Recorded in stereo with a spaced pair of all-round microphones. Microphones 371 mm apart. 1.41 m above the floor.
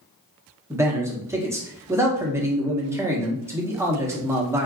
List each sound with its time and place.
0.7 s a man speaking: 5° right (ahead or behind), 0.8 m